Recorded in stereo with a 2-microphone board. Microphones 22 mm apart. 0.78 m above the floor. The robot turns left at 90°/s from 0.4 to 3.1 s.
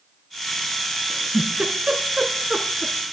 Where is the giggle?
20° right (ahead or behind), 2 m; by 2.9 s 10° left (ahead or behind), 2 m.